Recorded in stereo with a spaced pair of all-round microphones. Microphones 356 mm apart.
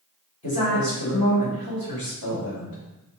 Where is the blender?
No blender in this recording.